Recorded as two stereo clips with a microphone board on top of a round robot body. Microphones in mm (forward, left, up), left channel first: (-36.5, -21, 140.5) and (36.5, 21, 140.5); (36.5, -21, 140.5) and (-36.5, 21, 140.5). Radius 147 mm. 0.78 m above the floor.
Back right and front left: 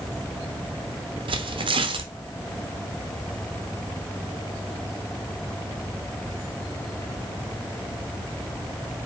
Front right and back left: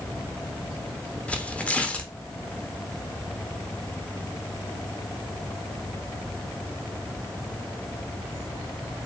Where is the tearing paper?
45° left, 0.8 m.